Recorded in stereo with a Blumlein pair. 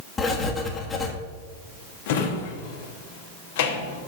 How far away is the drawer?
About 1.2 m.